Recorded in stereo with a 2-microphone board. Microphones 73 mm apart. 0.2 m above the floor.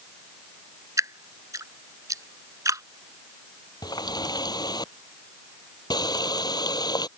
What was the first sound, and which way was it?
Dripping, 55° right (ahead or behind).